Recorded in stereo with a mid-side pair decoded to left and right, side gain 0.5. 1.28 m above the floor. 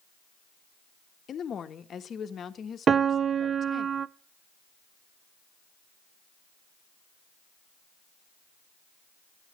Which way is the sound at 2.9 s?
40° right.